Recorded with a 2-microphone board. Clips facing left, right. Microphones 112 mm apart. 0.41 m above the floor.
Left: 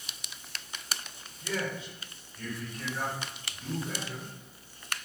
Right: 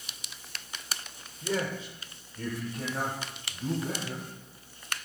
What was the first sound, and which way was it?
A man speaking, 25° right (ahead or behind).